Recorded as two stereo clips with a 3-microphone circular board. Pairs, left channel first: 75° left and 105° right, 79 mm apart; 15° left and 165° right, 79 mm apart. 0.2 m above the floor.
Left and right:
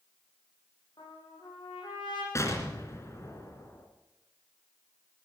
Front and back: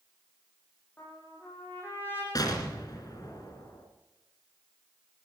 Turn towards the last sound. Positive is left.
turn(degrees=30)